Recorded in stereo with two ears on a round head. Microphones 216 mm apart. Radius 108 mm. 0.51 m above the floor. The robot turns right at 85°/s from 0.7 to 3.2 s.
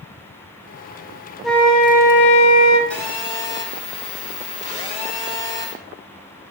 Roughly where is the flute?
Ahead.